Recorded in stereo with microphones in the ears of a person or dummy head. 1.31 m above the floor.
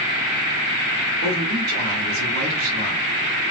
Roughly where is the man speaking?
Right.